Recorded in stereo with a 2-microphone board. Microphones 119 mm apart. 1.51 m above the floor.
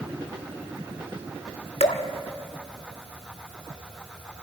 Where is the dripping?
65° left (ahead or behind), 1.6 m.